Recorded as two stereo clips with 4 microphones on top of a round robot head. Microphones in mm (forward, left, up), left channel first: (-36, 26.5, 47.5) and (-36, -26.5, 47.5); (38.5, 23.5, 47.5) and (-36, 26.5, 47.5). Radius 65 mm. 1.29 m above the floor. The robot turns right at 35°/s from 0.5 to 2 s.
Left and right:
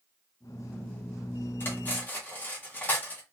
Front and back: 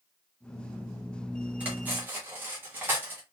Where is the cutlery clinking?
115° left, 0.6 m; by 3.2 s 130° left, 0.6 m.